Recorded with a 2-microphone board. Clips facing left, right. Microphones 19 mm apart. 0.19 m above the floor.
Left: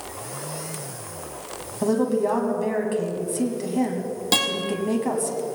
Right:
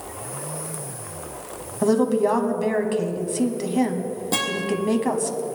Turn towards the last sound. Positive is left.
turn(degrees=75)  # may be behind; listen again after turning